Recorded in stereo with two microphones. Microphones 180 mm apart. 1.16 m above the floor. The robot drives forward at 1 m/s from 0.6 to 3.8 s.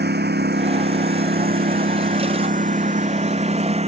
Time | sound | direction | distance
0.0 | a lawn mower | 80° right | ?